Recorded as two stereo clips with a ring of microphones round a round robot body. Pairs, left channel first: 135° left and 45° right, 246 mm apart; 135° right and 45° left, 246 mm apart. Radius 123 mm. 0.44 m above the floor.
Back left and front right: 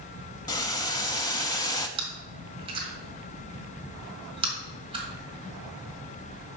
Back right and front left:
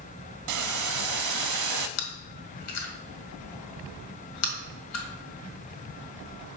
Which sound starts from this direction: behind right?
Chewing, at 2.0 s.